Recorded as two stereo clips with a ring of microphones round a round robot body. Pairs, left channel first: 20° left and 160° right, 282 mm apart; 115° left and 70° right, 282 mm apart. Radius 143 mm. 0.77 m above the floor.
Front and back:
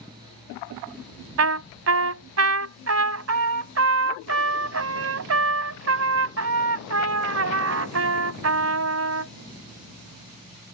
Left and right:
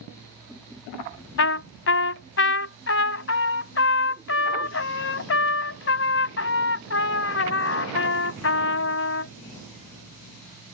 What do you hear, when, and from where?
1.4 s a trumpet: 160° left